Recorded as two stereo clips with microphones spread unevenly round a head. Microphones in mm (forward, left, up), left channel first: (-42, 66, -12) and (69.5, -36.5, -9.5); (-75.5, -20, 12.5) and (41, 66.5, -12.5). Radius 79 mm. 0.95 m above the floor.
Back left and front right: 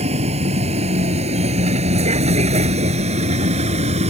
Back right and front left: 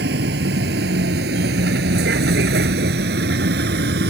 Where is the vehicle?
5° left.